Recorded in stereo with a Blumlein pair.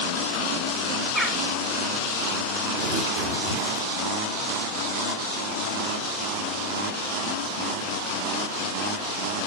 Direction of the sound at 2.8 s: 35° right.